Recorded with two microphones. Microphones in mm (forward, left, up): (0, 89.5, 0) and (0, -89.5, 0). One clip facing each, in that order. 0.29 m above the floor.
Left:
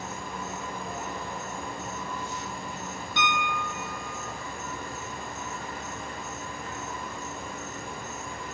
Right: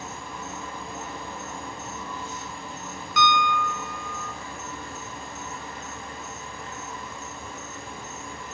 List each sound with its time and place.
0.0 s an insect: 15° left (ahead or behind), 1.5 m
3.2 s a piano: 35° left (ahead or behind), 0.7 m